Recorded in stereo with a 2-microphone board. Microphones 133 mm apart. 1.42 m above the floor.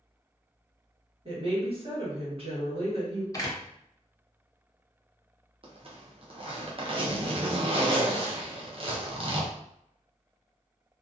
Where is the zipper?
45° right (ahead or behind), 0.6 m.